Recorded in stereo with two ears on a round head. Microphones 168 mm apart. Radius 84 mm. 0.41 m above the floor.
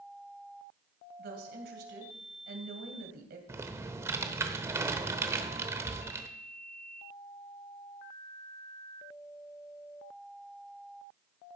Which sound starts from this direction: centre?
Typing on a keyboard, at 3.5 s.